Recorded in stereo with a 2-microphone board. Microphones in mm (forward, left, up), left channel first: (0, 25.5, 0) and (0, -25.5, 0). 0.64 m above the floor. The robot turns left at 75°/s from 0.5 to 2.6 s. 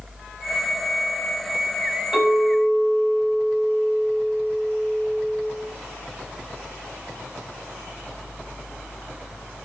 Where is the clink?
Straight ahead, 1.4 m; by 5.4 s 35° right, 1.4 m.